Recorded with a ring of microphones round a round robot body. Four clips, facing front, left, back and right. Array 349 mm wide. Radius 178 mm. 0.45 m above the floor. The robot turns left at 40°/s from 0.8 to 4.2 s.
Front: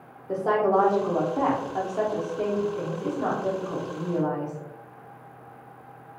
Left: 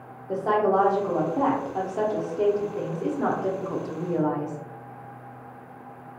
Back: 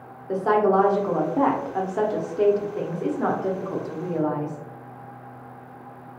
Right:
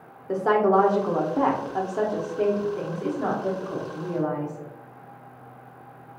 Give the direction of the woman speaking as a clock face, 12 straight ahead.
4 o'clock.